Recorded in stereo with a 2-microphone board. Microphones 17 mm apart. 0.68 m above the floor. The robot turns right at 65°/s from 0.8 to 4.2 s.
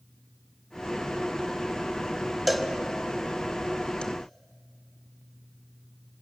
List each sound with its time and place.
2.5 s a cowbell: centre (ahead or behind), 1.5 m; by 4.0 s 70° left (ahead or behind), 1.5 m